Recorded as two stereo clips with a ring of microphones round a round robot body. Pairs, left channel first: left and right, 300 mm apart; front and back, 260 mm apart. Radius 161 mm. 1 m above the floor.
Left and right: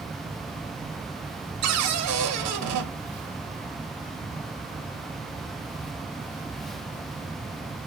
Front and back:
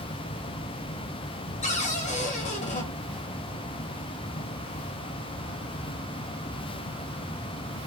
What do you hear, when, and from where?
1.6 s a cupboard door: 65° right, 0.9 m